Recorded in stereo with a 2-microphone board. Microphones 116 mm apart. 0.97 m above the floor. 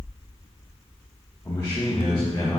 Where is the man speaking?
30° left (ahead or behind), 1.2 m; by 2.6 s 35° left (ahead or behind), 1.9 m.